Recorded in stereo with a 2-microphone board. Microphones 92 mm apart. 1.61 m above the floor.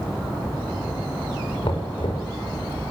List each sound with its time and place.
1.6 s knocking: 80° left, 5.5 m